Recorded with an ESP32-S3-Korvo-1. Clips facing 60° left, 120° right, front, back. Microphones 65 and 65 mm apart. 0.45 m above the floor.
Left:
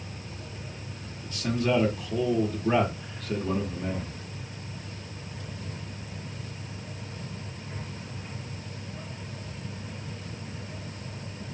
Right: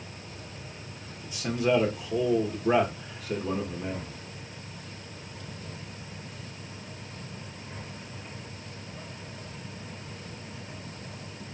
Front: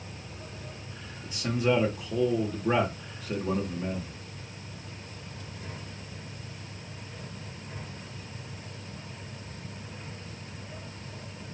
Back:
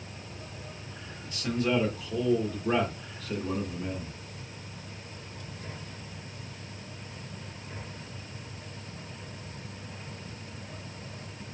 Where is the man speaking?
60° right, 1.3 m.